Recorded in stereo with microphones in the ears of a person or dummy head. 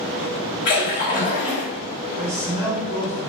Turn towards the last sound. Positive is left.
turn(degrees=-20)  # may be behind; listen again after turning